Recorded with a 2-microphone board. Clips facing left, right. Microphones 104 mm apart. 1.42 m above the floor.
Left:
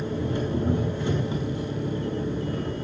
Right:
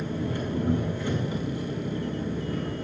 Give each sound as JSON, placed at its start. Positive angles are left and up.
{"t": 0.0, "sound": "an engine running", "side_deg": 20, "distance_m": 4.0}